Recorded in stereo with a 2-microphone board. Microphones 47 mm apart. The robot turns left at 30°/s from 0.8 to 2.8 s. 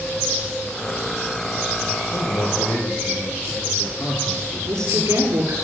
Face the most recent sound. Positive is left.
turn(degrees=-80)